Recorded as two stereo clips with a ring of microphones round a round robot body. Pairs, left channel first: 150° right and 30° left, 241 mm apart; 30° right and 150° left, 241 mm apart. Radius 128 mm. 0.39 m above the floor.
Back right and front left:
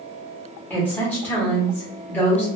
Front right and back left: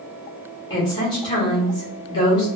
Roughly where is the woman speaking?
Right.